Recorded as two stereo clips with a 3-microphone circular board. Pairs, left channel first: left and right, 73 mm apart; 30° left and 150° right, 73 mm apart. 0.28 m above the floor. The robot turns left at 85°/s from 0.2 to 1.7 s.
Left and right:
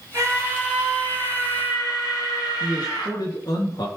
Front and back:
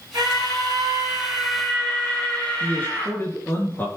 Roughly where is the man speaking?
Left.